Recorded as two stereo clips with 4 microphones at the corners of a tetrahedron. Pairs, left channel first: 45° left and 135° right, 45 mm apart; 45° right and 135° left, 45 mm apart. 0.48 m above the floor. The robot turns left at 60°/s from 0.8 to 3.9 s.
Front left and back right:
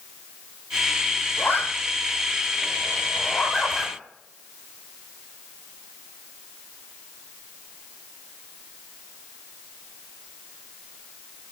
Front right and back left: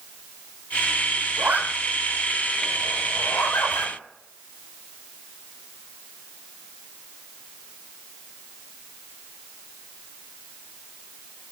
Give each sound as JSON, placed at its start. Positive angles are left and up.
{"t": 1.4, "sound": "a zipper", "azimuth_deg": 95, "distance_m": 9.5}